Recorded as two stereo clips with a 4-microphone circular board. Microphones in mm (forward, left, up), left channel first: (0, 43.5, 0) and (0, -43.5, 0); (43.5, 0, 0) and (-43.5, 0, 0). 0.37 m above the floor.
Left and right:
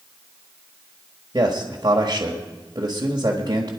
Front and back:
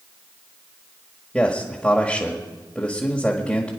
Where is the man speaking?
75° right, 1.5 m.